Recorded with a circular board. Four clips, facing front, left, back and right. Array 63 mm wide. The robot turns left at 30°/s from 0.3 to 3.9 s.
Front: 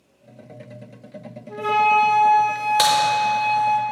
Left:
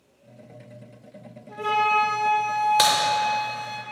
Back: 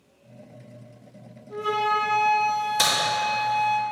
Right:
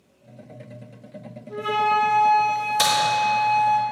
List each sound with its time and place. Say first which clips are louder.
1.5 s a flute: right 1 dB, front 6 dB; 45° left, 1.3 m; by 3.8 s 25° right, 1.3 m
2.8 s a crack: even, front 10 dB; 50° left, 1.8 m; by 2.9 s 45° left, 1.8 m